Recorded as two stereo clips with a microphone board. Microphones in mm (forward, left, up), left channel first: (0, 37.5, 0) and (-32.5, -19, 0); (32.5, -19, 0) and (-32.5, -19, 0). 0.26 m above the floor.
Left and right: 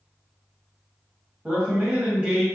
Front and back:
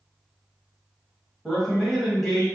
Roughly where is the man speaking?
Right.